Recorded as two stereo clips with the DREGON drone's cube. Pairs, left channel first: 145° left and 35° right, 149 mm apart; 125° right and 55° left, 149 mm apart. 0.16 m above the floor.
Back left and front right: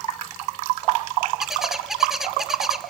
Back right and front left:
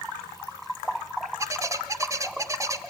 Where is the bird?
50° left, 1.1 m.